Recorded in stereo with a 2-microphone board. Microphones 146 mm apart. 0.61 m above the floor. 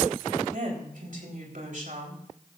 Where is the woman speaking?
65° right (ahead or behind), 3.5 m.